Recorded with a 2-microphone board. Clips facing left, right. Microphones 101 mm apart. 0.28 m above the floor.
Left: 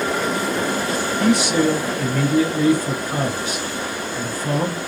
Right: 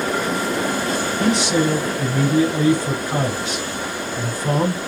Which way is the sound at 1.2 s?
25° right (ahead or behind).